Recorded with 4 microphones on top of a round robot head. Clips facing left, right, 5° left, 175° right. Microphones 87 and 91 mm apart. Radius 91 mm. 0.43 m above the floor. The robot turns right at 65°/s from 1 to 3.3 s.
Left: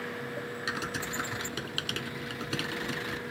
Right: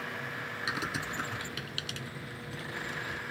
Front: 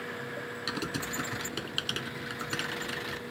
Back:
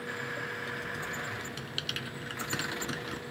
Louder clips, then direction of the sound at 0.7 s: Right 1 dB, front 3 dB; 5° right.